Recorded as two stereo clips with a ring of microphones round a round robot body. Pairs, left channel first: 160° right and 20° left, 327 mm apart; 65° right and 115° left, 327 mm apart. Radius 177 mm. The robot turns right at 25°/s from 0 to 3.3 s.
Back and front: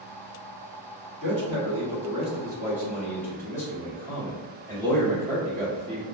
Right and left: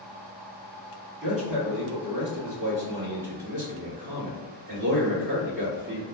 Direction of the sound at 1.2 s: 70° left.